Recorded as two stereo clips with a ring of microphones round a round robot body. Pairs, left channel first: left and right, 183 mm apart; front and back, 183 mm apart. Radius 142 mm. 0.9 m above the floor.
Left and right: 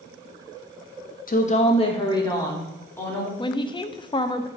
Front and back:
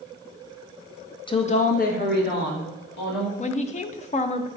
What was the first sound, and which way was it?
A woman speaking, 60° left.